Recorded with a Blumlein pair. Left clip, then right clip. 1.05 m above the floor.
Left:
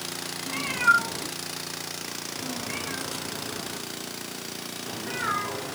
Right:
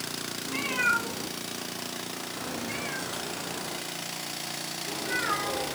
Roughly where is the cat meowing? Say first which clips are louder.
Left 5 dB; ahead.